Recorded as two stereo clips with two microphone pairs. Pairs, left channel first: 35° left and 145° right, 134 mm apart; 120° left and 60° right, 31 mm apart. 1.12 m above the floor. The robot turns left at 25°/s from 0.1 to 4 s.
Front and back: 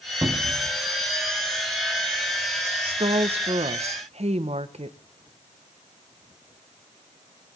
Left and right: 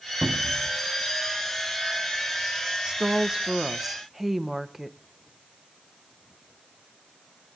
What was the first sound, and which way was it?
A cupboard door, 85° right.